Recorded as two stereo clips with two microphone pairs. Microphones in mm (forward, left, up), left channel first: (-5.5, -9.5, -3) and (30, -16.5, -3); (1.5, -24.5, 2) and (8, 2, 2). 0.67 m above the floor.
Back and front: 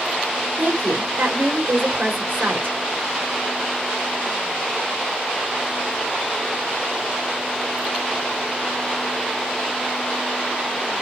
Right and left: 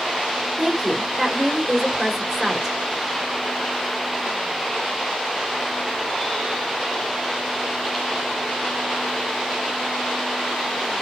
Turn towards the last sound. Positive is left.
turn(degrees=0)